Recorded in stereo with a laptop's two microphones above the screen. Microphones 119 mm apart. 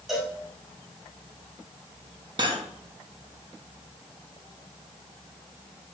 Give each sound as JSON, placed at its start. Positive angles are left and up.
{"t": 0.1, "sound": "a cowbell", "side_deg": 0, "distance_m": 1.7}
{"t": 2.4, "sound": "cutlery clinking", "side_deg": -40, "distance_m": 0.5}